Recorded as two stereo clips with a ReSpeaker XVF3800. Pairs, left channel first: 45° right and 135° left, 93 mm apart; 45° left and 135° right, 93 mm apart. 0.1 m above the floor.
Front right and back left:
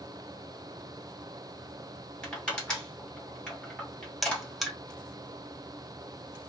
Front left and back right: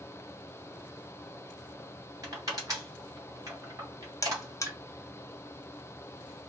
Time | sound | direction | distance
2.2 | crushing | 120° right | 2 m
4.2 | a buzzer | 45° left | 0.5 m